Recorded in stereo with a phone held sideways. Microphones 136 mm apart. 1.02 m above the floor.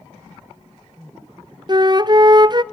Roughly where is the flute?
Right.